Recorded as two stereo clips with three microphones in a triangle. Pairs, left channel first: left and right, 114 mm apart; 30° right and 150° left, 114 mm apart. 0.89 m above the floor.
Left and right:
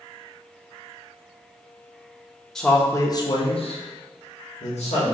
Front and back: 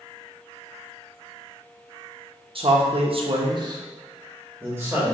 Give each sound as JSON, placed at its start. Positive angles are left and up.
{"t": 2.5, "sound": "a man speaking", "azimuth_deg": 175, "distance_m": 0.6}